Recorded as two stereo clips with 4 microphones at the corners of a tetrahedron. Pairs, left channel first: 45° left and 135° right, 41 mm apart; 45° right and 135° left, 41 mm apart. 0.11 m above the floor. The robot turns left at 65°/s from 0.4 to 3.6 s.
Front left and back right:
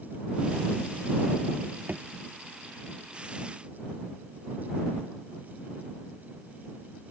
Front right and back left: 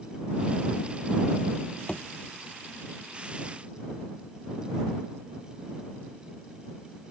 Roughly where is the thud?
Right.